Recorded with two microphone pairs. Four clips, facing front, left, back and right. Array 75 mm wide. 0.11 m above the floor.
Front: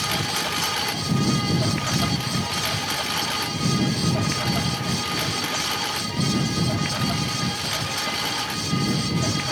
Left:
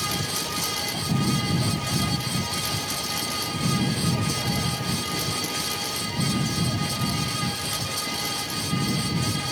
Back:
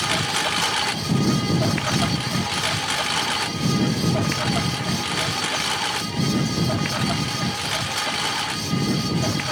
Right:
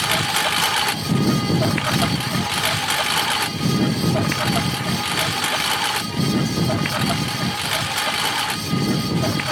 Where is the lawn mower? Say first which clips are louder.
Right 9 dB, back 3 dB; 110° right; by 9.5 s 105° right.